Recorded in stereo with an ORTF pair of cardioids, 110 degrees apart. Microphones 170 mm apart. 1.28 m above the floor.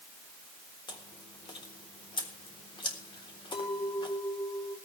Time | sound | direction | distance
0.9 | chewing | 30° left | 3.5 m
3.5 | a clink | 35° left | 3.5 m